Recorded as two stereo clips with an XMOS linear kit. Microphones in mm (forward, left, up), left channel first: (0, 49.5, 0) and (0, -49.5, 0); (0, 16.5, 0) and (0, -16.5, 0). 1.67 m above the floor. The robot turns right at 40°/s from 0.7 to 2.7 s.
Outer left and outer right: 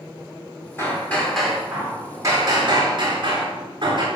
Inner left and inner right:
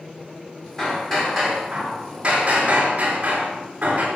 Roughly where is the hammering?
Behind left.